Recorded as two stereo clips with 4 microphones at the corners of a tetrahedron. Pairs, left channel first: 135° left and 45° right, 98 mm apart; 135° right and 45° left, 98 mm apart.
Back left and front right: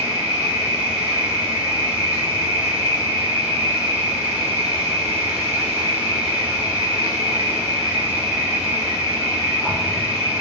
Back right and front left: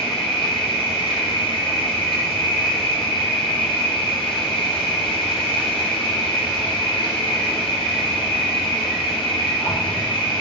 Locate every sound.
0.0 s an insect: 120° right, 3.5 m